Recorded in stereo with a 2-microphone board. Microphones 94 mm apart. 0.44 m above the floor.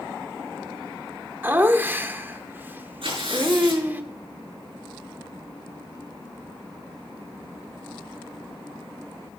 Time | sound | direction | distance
1.4 | laughter | 20° right (ahead or behind) | 0.8 m
3.0 | tearing paper | 70° right (ahead or behind) | 6 m